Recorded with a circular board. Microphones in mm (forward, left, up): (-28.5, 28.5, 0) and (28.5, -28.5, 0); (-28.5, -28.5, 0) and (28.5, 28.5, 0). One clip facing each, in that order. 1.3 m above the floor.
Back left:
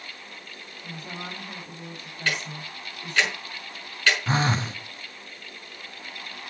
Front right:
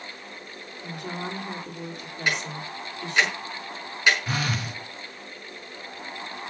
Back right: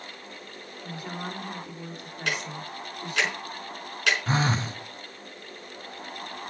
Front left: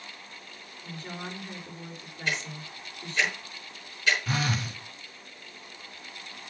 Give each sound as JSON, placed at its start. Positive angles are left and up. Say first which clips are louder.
{"t": 0.8, "sound": "a woman speaking", "louder": "front right 4 dB, back right 3 dB", "azimuth_deg": -60, "distance_m": 3.5}
{"t": 2.3, "sound": "ticking", "louder": "front right 2 dB, back right 2 dB", "azimuth_deg": -115, "distance_m": 5.5}
{"t": 4.3, "sound": "a phone buzzing", "louder": "back left 4 dB, back right 4 dB", "azimuth_deg": -175, "distance_m": 0.7}